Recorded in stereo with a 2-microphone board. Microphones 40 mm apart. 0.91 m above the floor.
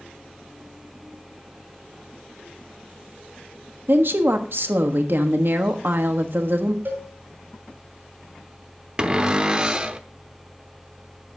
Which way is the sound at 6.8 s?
50° right (ahead or behind).